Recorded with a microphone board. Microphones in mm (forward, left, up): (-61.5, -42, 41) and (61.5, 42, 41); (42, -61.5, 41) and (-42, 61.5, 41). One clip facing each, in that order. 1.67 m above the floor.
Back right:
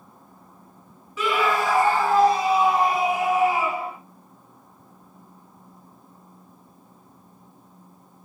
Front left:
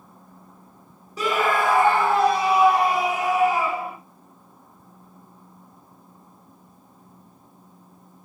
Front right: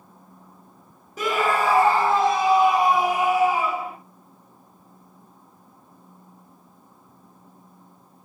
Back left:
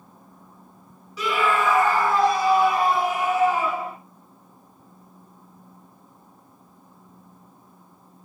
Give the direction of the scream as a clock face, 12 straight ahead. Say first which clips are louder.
Front left 1 dB, even; 1 o'clock.